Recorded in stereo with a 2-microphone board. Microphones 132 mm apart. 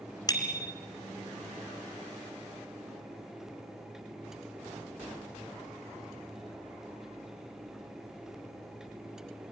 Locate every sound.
0.3 s a bicycle bell: 30° left (ahead or behind), 2 m